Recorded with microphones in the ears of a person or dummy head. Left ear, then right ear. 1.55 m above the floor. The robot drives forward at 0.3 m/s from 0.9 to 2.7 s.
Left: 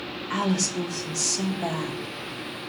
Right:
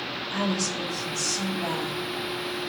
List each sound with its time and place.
0.3 s a woman speaking: 60° left (ahead or behind), 1.3 m; by 2.0 s 50° left (ahead or behind), 1.5 m